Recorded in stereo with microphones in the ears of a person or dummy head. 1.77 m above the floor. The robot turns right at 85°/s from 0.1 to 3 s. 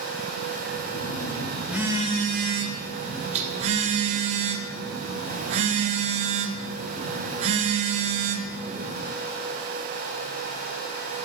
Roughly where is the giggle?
No giggle in this recording.